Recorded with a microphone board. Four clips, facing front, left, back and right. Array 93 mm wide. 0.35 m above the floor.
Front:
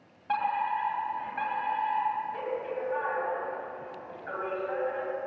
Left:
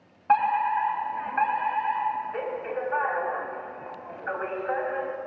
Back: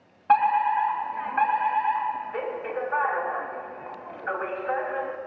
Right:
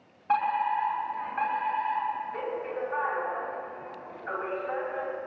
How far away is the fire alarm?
About 3 m.